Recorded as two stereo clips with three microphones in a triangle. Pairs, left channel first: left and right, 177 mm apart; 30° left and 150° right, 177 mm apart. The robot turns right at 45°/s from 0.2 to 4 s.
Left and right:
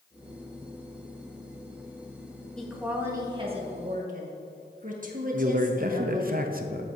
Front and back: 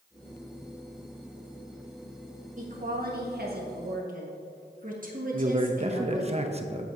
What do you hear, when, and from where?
2.6 s a woman speaking: 175° left, 1.6 m; by 6.3 s 120° right, 1.6 m
5.3 s a man speaking: 105° right, 0.7 m